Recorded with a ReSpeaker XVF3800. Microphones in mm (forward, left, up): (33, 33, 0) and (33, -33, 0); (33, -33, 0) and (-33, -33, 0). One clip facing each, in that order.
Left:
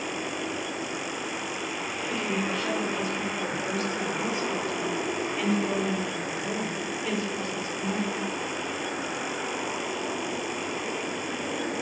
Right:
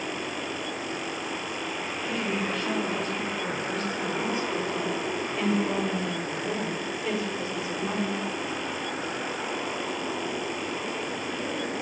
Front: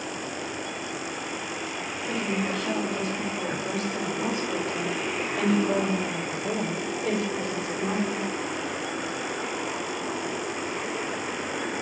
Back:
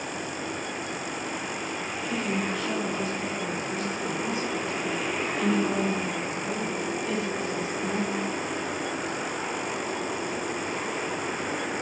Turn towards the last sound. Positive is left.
turn(degrees=-15)